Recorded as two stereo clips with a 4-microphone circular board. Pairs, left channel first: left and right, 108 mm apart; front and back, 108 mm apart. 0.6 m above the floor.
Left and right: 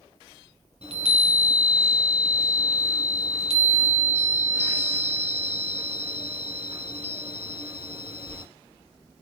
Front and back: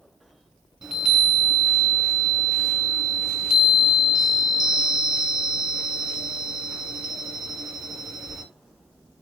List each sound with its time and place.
0.8 s a chime: 100° right, 1.4 m